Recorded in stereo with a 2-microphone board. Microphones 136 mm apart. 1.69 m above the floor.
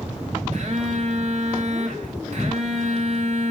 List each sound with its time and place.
0.5 s a phone buzzing: 55° right (ahead or behind), 4 m